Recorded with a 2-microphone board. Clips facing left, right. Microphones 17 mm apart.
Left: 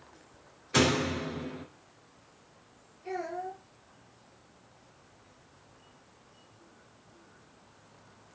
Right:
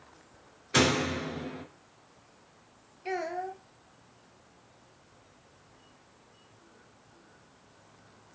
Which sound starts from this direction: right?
A child speaking, at 3.0 s.